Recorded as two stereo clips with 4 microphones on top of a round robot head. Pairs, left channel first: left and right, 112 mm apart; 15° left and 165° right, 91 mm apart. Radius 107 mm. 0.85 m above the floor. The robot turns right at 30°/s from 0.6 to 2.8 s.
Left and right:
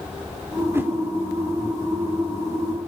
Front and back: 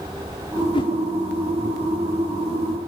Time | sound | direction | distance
0.7 | a whoosh | 20° right | 3.5 m